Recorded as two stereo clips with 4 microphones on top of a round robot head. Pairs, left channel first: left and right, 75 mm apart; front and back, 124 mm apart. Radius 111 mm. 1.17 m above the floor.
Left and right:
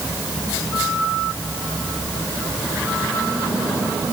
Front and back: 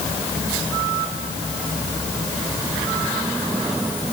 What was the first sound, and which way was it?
Only background noise.